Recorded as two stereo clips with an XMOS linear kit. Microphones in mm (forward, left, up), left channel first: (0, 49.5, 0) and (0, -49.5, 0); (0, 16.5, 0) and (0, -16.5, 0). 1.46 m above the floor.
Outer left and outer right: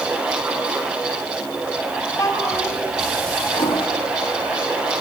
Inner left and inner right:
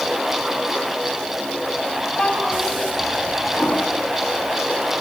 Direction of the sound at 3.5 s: 65° left (ahead or behind).